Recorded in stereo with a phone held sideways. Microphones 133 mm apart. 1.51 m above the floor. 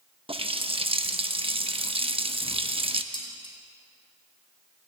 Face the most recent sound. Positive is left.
turn(degrees=35)  # may be behind; listen again after turning